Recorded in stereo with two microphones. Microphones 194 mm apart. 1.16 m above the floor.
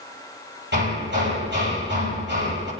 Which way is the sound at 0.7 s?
65° right (ahead or behind).